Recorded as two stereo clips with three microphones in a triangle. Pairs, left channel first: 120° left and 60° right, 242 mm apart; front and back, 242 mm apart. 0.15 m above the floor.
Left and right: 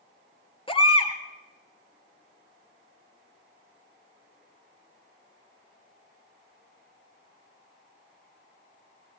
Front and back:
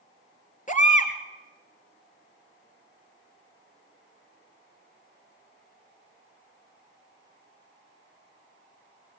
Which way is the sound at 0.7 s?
55° left.